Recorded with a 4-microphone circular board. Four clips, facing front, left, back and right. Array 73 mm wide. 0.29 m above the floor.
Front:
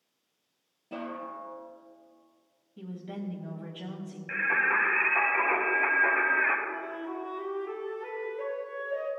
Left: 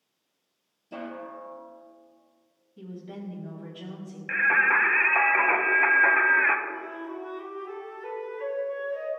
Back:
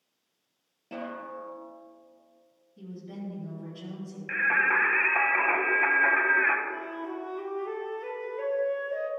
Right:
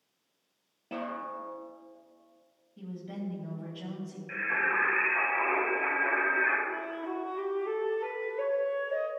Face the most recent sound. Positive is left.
turn(degrees=-110)